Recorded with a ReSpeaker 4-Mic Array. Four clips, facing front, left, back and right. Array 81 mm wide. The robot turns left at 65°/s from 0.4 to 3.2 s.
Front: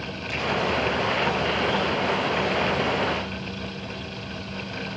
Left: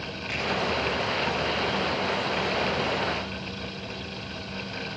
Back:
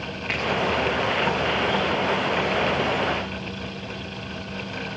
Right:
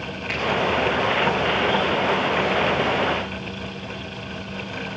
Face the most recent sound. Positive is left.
turn(degrees=15)